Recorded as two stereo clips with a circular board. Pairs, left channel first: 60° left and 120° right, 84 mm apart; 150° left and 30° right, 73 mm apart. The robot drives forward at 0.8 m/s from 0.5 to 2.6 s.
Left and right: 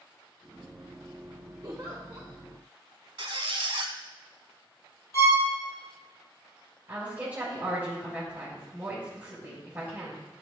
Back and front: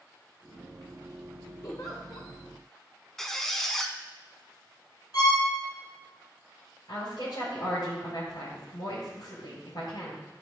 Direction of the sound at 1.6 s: 170° right.